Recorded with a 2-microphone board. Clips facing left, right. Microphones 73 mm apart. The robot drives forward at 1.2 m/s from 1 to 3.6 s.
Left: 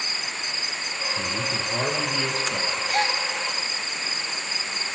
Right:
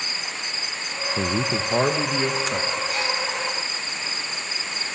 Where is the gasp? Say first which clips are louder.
Left 2 dB; 60° left (ahead or behind), 3 m; by 3.2 s 55° left (ahead or behind), 3 m.